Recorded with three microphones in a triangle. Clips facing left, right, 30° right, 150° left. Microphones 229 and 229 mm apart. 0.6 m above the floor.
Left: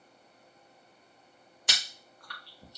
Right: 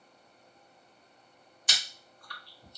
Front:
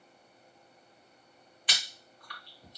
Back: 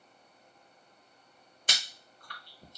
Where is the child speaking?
No child speaking in this recording.